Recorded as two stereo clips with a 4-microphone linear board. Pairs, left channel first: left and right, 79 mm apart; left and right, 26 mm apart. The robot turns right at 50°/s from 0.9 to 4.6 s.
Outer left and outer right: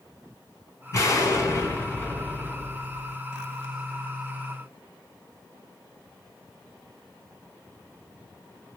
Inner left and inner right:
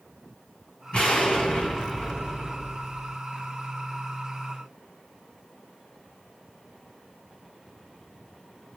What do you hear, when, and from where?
0.9 s an explosion: 85° left, 1.6 m; by 3.1 s 160° right, 1.6 m